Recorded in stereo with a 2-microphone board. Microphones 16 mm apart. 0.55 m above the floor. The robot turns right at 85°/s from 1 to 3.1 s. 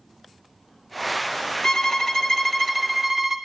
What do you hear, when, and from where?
1.6 s a violin: 85° left, 0.6 m; by 3.4 s 150° right, 0.6 m